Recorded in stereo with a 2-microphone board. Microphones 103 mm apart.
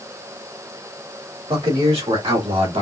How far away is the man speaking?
About 2 m.